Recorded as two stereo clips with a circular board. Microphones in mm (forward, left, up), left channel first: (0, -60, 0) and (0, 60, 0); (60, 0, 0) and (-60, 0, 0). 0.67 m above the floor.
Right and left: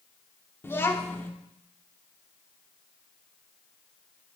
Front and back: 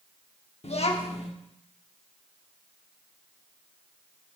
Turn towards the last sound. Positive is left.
turn(degrees=-20)